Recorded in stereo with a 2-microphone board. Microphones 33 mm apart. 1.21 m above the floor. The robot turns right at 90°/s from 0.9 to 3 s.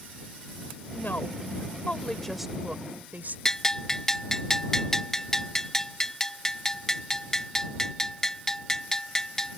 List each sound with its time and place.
0.9 s a woman speaking: 55° left; by 3.4 s 120° right
3.5 s a bell: 15° left (ahead or behind)